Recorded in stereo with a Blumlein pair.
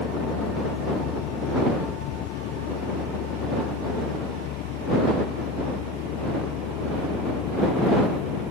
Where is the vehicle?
40° left.